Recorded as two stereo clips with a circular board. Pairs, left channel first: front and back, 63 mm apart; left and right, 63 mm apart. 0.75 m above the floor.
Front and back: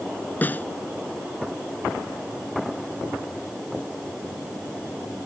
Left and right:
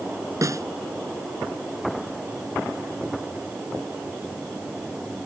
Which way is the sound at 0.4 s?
60° right.